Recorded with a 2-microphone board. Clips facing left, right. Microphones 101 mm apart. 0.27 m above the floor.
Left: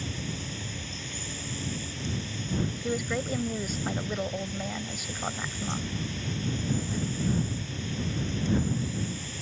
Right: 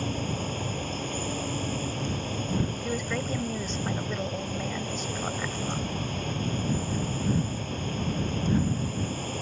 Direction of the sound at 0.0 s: 50° right (ahead or behind).